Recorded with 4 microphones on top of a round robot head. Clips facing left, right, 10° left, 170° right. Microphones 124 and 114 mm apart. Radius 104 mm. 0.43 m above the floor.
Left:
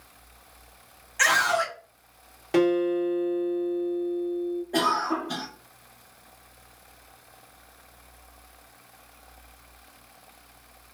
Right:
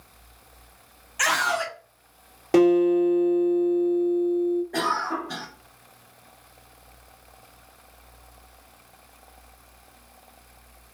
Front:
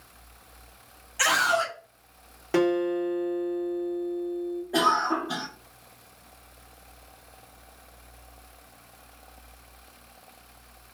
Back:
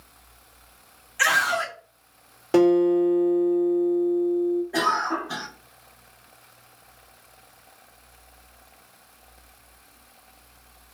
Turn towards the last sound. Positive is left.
turn(degrees=50)